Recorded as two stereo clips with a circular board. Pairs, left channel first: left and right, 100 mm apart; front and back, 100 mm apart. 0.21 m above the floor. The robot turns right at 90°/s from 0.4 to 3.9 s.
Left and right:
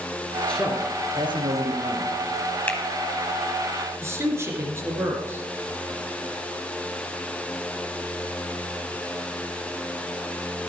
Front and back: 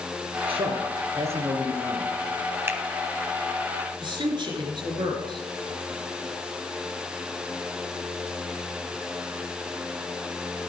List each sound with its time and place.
0.5 s a man speaking: 170° left, 3 m; by 2.1 s 40° right, 3 m
2.7 s a finger snap: 140° left, 1.1 m; by 2.8 s 155° left, 1.1 m
4.0 s a man speaking: 150° right, 2.5 m